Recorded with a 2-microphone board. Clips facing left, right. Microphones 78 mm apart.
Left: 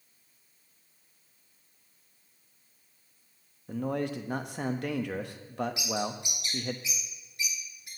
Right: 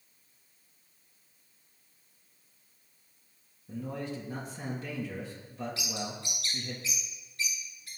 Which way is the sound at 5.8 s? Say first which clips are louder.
Left 5 dB; 20° left (ahead or behind).